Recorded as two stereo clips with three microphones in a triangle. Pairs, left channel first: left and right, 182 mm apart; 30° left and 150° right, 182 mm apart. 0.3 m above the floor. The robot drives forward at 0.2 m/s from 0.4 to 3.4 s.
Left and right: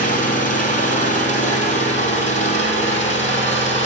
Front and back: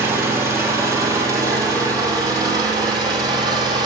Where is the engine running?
135° left, 2.5 m; by 3.9 s 145° left, 3 m.